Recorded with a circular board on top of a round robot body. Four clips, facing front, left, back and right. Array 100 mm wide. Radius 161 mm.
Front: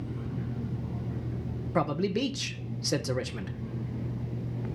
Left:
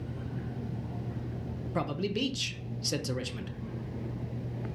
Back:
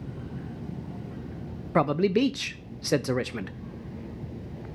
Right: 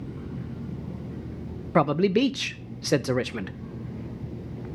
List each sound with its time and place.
1.8 s a man speaking: 120° right, 0.6 m